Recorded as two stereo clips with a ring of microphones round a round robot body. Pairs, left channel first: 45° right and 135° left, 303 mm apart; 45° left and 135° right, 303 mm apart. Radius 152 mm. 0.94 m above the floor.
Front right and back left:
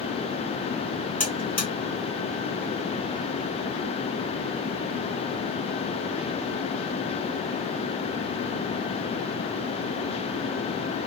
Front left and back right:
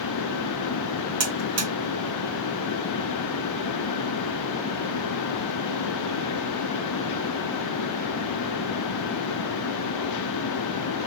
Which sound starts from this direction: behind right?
A buzzer, at 1.2 s.